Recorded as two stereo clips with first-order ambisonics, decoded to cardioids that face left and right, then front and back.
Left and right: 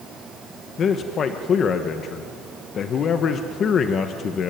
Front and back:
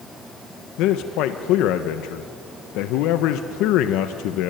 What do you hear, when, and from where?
0.8 s a man speaking: 30° left, 1.3 m